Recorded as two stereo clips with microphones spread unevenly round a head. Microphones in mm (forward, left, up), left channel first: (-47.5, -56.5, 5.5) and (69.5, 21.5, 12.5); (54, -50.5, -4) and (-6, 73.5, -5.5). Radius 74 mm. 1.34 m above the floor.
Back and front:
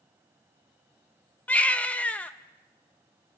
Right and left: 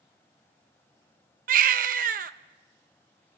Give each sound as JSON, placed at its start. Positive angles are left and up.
{"t": 1.5, "sound": "a baby crying", "azimuth_deg": 130, "distance_m": 0.8}